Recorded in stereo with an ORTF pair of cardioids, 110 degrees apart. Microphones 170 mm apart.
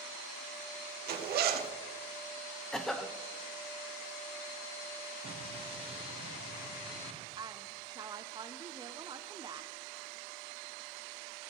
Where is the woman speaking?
25° right, 0.6 m.